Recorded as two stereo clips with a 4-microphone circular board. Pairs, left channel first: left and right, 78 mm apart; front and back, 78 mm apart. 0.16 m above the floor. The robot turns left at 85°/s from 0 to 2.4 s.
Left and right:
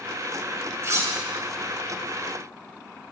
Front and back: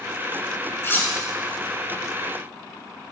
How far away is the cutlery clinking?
About 1.2 m.